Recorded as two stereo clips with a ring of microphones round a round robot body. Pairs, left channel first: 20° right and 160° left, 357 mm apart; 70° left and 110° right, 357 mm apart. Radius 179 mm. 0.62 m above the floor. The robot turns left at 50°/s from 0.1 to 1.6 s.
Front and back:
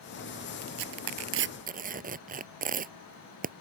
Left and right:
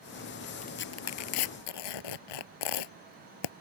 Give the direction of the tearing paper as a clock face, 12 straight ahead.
7 o'clock.